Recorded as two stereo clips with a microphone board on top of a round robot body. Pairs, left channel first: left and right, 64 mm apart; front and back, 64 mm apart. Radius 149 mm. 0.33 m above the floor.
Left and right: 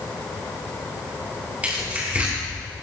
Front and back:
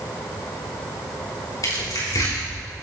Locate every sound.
1.6 s tearing paper: 20° right, 5.5 m